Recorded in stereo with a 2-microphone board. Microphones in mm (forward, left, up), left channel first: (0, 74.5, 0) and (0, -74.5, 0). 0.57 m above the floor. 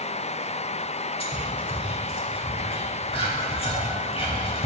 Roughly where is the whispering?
Left.